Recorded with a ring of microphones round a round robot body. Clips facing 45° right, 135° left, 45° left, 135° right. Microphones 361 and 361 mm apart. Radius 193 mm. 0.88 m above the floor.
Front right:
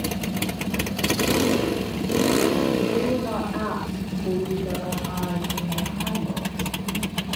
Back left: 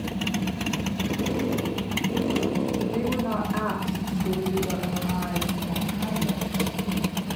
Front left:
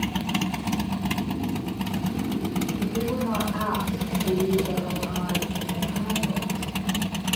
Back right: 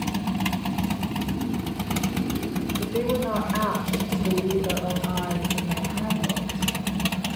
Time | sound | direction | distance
2.8 | a woman speaking | 160° right | 4.5 m